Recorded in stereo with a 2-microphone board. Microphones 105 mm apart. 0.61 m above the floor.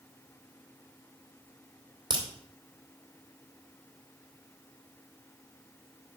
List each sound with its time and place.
2.1 s a crack: 45° right (ahead or behind), 2 m